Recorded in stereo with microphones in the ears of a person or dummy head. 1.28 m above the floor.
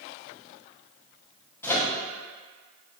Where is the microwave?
10° left (ahead or behind), 0.7 m.